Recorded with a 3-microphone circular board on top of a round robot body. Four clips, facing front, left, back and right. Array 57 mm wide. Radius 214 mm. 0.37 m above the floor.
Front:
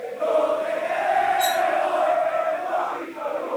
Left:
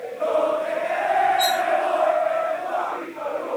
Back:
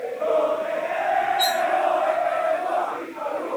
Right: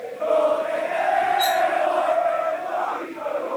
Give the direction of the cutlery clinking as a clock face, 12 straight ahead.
10 o'clock.